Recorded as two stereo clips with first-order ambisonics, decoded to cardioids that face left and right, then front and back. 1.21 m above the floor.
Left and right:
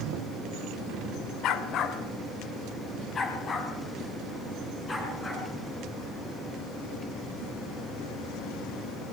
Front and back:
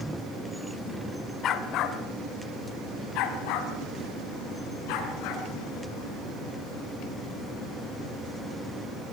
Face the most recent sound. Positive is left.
turn(degrees=15)